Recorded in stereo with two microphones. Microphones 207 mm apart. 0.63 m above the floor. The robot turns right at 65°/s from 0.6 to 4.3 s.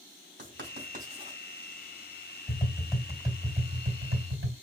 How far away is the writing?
About 2 m.